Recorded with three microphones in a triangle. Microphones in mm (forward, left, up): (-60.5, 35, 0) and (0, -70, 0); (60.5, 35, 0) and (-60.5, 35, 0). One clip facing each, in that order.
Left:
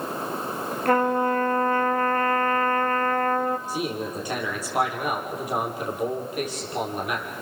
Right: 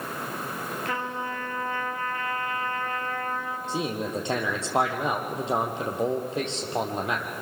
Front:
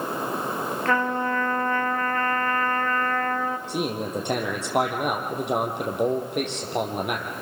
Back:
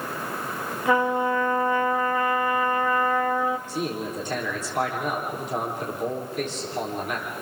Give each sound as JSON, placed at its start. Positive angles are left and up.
{"t": 0.8, "sound": "a trumpet", "azimuth_deg": 105, "distance_m": 1.2}
{"t": 3.7, "sound": "a man speaking", "azimuth_deg": 5, "distance_m": 4.5}